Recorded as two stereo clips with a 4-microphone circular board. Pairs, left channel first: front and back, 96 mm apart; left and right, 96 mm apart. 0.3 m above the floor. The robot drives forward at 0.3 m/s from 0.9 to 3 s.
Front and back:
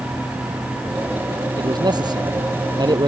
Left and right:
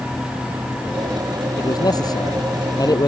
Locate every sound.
1.6 s a man speaking: 140° left